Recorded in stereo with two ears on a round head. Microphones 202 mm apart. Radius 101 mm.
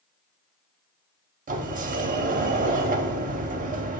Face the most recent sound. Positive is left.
turn(degrees=-35)  # may be behind; listen again after turning